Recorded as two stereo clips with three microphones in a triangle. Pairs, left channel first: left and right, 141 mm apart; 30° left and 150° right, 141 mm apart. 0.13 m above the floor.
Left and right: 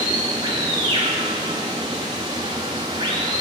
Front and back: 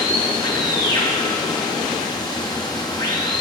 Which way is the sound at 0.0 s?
30° right.